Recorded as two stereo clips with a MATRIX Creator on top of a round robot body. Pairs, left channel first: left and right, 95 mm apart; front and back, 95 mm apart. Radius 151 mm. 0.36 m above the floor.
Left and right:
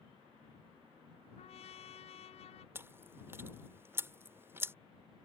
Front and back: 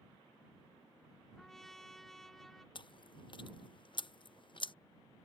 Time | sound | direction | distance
1.4 | a trumpet | 85° left | ?
2.8 | chewing | 25° right | ?